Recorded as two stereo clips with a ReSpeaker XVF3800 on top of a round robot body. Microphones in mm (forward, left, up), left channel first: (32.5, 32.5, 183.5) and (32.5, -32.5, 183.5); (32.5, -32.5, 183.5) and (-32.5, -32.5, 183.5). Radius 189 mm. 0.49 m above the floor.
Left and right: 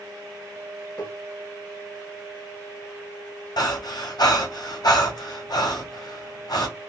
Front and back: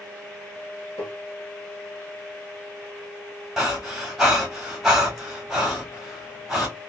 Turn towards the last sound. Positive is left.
turn(degrees=95)